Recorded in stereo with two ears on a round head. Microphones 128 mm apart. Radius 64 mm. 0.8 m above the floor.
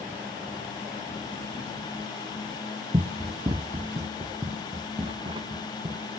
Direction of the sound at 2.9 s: 35° right (ahead or behind).